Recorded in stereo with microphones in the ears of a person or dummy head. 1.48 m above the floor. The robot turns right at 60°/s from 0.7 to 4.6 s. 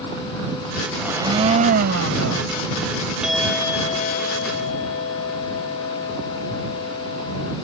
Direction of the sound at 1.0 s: 175° right.